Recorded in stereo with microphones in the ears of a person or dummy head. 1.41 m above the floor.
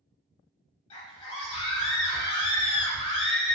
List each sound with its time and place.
0.9 s a scream: 25° left (ahead or behind), 1.0 m